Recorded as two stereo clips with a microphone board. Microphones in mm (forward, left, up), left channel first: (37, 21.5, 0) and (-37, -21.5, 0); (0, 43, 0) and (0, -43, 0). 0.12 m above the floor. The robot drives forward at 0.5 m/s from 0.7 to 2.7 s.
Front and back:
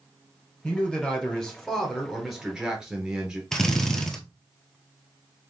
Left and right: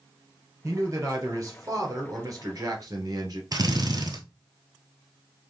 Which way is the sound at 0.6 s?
45° right.